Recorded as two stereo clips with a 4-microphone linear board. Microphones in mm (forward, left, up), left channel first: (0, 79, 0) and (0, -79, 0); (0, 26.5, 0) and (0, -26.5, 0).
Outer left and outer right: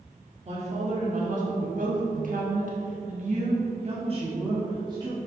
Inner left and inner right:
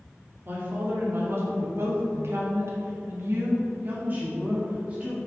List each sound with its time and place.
0.5 s a woman speaking: 45° right (ahead or behind), 2 m; by 5.2 s 25° right (ahead or behind), 2 m